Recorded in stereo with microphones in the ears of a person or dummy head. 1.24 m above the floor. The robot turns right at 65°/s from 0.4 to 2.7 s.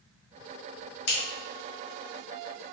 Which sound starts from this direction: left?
Scissors, at 1.1 s.